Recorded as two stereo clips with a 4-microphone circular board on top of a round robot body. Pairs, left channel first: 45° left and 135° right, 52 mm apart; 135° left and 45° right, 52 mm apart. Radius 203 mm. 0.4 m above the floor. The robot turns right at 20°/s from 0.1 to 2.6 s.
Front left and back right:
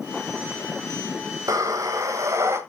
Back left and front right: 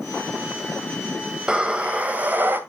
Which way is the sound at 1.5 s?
125° right.